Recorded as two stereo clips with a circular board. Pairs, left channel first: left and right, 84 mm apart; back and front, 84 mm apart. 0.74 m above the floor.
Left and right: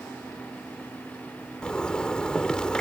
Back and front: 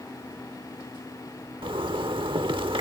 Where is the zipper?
10° left.